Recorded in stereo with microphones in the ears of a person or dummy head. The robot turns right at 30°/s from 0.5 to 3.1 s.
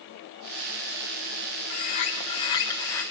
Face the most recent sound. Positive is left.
turn(degrees=165)